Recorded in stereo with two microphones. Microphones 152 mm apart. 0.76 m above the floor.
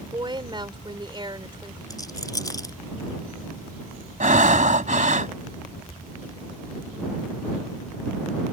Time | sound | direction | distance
0.1 | a woman speaking | 30° right (ahead or behind) | ?
1.9 | a rattle | 25° left (ahead or behind) | ?
4.2 | breathing | 60° right (ahead or behind) | ?